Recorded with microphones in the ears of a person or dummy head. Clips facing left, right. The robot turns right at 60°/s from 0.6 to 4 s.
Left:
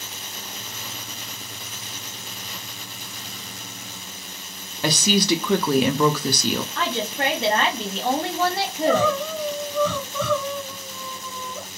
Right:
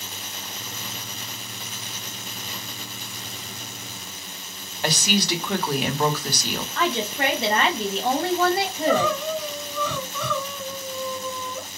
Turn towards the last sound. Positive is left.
turn(degrees=30)  # may be behind; listen again after turning